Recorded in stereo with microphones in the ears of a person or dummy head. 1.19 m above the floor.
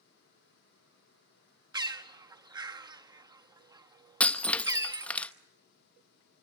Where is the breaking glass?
5° left (ahead or behind), 0.8 m.